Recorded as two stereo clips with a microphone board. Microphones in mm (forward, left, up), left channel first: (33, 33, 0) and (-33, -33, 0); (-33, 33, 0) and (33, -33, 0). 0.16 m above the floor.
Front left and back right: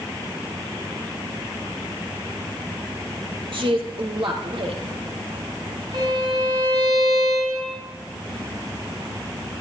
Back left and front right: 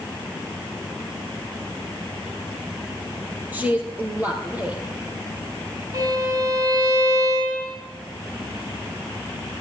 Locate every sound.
3.5 s a woman speaking: 115° right, 3.5 m
5.9 s a violin: 95° right, 10 m